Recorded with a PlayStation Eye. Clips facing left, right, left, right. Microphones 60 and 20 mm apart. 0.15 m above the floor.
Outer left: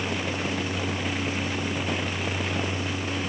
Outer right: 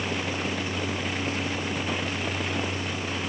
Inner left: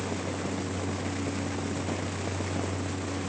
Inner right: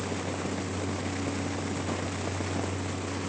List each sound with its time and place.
Only background noise.